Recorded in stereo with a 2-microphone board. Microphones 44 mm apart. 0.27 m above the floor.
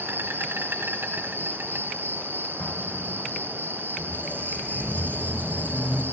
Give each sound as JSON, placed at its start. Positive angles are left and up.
{"t": 0.0, "sound": "an insect", "side_deg": -60, "distance_m": 2.0}
{"t": 2.6, "sound": "an explosion", "side_deg": 50, "distance_m": 2.5}
{"t": 4.0, "sound": "a squeak", "side_deg": 35, "distance_m": 3.5}